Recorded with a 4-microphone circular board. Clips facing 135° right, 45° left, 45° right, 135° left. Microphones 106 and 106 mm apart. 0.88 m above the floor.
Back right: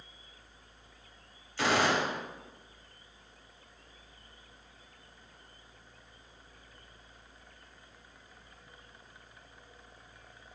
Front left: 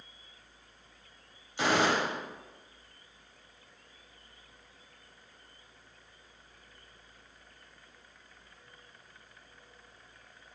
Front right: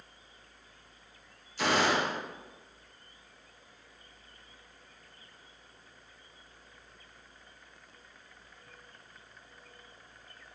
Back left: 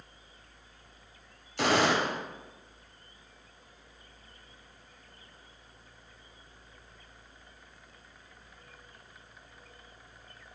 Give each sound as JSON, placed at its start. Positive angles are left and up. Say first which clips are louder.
{"t": 1.6, "sound": "a gunshot", "louder": "front left 1 dB, back left 2 dB", "azimuth_deg": 115, "distance_m": 3.0}